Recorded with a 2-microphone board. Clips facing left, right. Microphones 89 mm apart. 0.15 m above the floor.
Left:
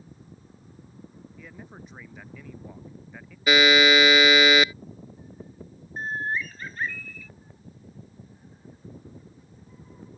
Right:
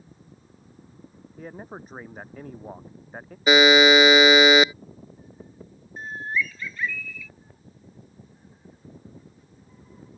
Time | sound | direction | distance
1.4 | a man speaking | 40° right (ahead or behind) | ?
3.5 | a buzzer | 20° right (ahead or behind) | ?
6.0 | a bird | 40° left (ahead or behind) | ?